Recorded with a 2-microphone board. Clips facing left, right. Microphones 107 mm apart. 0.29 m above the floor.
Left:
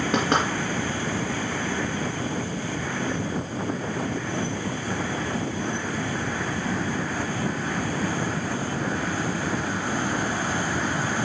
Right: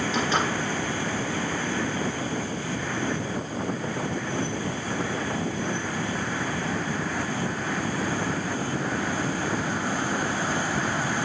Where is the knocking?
65° left (ahead or behind), 2.5 m.